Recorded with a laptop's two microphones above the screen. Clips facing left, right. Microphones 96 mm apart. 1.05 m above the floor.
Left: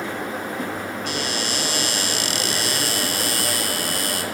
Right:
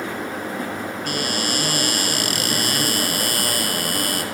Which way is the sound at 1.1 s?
50° right (ahead or behind).